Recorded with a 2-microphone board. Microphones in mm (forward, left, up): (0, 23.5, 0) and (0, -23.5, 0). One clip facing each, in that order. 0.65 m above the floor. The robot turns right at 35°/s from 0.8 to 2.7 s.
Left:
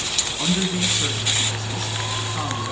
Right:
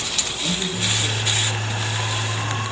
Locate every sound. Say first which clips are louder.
0.4 s a man speaking: left 4 dB; 90° left, 5 m; by 2.7 s 155° left, 5 m